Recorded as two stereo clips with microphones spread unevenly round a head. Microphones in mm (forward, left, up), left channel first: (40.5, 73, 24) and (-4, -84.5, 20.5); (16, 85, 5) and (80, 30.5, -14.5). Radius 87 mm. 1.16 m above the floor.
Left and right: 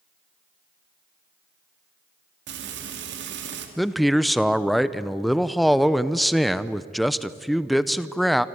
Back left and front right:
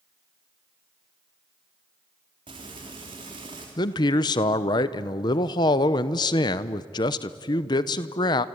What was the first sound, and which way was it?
Frying, 95° right.